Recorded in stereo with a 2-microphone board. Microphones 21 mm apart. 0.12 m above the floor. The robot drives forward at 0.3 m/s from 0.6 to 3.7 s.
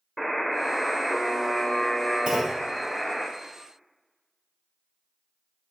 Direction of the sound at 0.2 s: 10° left (ahead or behind).